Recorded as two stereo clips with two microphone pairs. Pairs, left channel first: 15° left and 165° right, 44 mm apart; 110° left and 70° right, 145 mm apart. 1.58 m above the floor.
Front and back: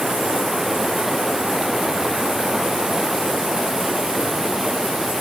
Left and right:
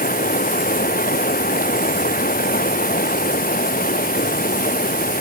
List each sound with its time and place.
0.0 s running water: 115° left